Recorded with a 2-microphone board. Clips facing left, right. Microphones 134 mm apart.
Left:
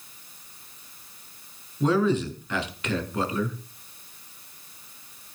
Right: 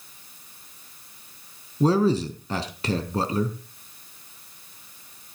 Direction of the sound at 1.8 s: 40° right (ahead or behind).